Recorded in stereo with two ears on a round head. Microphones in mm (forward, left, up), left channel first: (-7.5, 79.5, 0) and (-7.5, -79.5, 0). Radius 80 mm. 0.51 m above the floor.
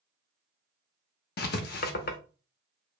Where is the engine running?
No engine running in this recording.